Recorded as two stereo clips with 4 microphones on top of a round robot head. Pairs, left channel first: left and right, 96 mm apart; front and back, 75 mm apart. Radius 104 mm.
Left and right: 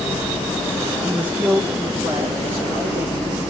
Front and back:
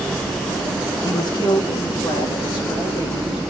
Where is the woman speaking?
15° right, 0.8 m; by 3.4 s 20° right, 2 m.